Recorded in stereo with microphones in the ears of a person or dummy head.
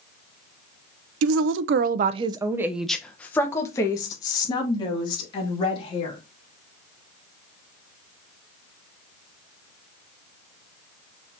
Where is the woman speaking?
85° right, 0.6 m; by 6.2 s 30° left (ahead or behind), 2.5 m.